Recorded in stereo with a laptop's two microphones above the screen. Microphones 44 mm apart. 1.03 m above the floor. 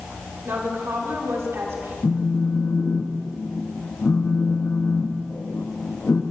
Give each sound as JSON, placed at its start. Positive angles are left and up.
{"t": 0.5, "sound": "a woman speaking", "side_deg": -75, "distance_m": 3.0}
{"t": 2.0, "sound": "a phone buzzing", "side_deg": 60, "distance_m": 0.9}